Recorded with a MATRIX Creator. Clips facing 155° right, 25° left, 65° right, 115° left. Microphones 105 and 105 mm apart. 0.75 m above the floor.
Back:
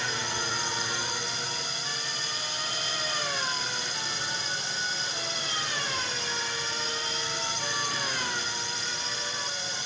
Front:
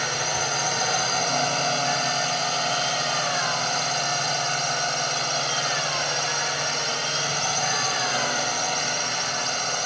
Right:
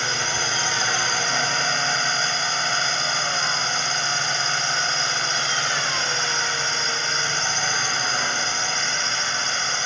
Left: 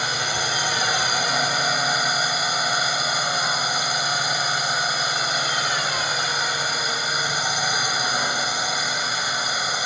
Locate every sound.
0.0 s a drone: 35° left